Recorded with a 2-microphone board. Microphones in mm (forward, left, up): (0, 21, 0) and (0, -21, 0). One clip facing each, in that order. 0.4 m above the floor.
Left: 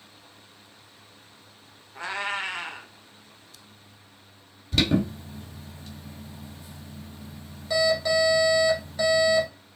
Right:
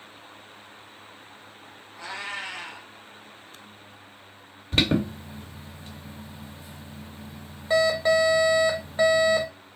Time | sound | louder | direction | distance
1.9 | a cat meowing | left 4 dB | 45° left (ahead or behind) | 1.0 m
4.7 | an alarm | even | 35° right (ahead or behind) | 1.2 m